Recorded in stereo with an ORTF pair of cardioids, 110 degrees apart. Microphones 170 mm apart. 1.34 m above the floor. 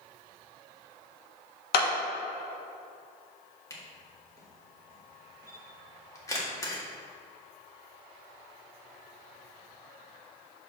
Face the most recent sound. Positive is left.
turn(degrees=20)